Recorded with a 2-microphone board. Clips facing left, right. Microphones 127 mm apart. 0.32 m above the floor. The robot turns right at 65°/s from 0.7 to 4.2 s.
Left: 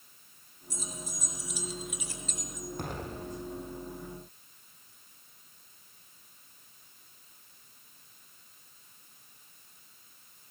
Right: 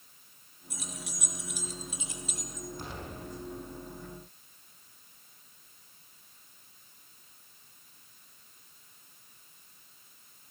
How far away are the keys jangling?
About 4 m.